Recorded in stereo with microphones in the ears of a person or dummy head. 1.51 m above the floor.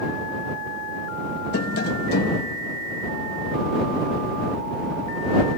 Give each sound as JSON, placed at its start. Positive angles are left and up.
{"t": 1.5, "sound": "tapping", "side_deg": 60}